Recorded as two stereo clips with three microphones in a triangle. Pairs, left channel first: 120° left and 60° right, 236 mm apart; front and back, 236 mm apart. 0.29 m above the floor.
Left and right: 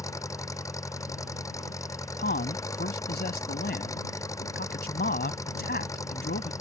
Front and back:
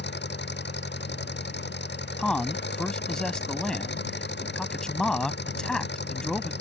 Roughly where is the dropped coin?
No dropped coin in this recording.